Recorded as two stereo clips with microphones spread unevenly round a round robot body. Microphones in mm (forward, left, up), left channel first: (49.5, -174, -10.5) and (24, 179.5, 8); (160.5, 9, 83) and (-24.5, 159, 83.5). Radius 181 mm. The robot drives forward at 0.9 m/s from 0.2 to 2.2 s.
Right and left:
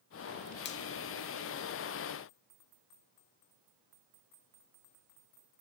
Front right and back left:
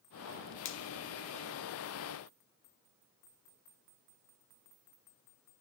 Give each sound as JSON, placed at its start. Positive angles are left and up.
{"t": 0.7, "sound": "a finger snap", "azimuth_deg": -35, "distance_m": 1.0}